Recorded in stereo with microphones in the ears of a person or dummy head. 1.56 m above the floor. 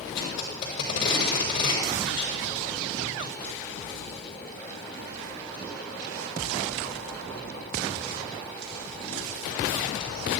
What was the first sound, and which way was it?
Tape being pulled, 65° left (ahead or behind).